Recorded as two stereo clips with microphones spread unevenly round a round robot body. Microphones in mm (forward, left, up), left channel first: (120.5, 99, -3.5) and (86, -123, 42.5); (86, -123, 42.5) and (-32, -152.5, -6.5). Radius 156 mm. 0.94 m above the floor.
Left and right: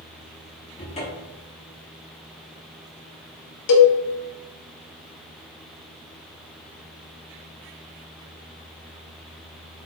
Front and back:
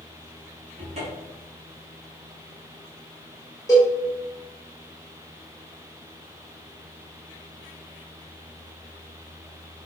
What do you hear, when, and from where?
0.8 s a cupboard door: 150° left, 1.3 m
3.7 s a cowbell: 90° left, 1.1 m